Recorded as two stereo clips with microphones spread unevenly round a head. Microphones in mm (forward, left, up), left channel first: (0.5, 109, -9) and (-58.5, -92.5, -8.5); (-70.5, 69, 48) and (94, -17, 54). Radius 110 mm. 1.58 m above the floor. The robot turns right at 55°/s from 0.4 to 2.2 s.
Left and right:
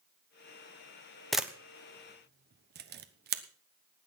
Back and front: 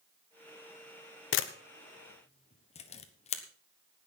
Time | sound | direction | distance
1.3 | a camera shutter | 160° left | 1.1 m